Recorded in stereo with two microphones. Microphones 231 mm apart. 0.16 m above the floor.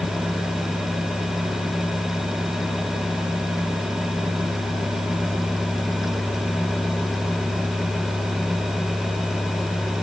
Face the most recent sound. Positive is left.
No sound to turn to.